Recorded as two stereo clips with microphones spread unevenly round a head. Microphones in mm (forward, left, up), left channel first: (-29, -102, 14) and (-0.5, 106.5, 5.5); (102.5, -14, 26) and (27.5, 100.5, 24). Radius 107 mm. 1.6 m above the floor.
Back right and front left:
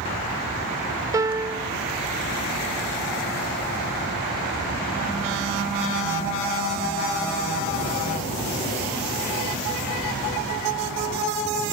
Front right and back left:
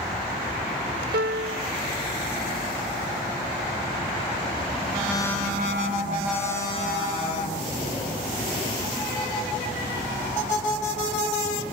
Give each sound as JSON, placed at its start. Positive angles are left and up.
{"t": 1.1, "sound": "a piano", "azimuth_deg": 160}